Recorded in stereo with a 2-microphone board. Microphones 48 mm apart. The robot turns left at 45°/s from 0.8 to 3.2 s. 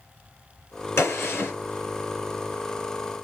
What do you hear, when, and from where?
1.0 s a gunshot: 60° left (ahead or behind), 1.9 m; by 1.5 s 45° left (ahead or behind), 1.9 m